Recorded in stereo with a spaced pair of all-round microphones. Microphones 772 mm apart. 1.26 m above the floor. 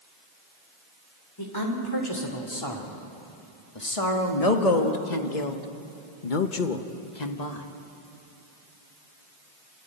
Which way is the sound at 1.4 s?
25° left (ahead or behind).